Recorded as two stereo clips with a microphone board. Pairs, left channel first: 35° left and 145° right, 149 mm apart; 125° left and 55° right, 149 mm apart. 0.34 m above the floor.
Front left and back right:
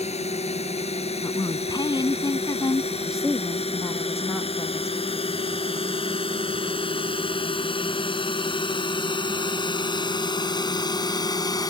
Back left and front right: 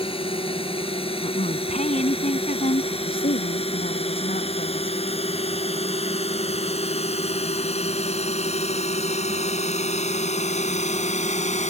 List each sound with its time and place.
0.0 s a drone: 75° left; by 11.7 s 95° left
1.2 s a woman speaking: 95° left
2.9 s a woman speaking: 125° left